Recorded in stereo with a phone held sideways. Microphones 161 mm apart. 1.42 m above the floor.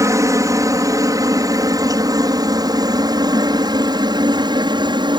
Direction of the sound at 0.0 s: 20° right (ahead or behind).